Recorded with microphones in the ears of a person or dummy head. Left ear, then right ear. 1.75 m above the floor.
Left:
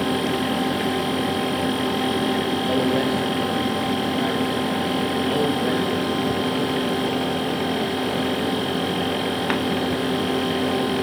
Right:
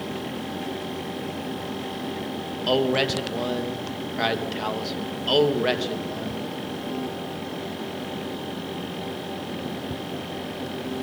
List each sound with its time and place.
2.7 s a man speaking: 40° right (ahead or behind), 3 m